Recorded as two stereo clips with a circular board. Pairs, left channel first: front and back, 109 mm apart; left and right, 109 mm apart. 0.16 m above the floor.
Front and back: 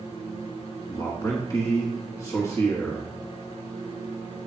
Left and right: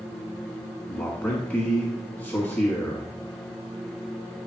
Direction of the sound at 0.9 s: 30° left.